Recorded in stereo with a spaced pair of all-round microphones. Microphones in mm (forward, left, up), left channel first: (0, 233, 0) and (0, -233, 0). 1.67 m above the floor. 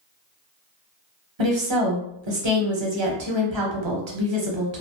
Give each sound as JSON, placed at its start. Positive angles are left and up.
{"t": 1.4, "sound": "a woman speaking", "side_deg": -70, "distance_m": 0.8}